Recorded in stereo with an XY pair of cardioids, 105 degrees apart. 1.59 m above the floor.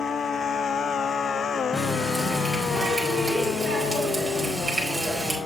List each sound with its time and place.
1.7 s a running tap: straight ahead, 4.5 m